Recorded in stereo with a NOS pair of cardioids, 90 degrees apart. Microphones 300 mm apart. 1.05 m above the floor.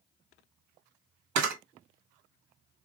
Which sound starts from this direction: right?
A camera shutter, at 1.4 s.